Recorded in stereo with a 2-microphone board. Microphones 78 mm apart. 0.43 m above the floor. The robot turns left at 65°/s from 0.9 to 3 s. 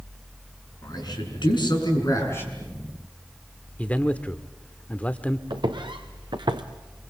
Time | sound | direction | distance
0.8 | a man speaking | 125° left | 6 m
3.8 | a man speaking | 15° left (ahead or behind) | 0.8 m
5.5 | footsteps | 80° right | 2.5 m